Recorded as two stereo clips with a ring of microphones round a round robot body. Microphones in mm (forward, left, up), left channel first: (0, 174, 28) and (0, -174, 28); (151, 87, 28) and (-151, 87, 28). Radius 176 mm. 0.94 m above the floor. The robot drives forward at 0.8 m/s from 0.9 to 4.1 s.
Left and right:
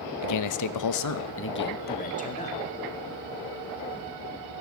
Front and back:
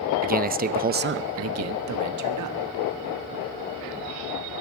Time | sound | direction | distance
0.2 | a man speaking | 120° left | 0.7 m